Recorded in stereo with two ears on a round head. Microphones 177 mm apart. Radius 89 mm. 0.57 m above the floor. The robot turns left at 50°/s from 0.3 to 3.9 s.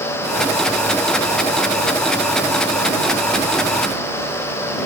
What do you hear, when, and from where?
Only background noise.